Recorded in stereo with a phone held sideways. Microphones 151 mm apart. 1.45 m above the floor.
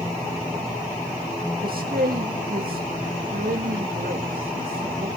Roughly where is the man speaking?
Right.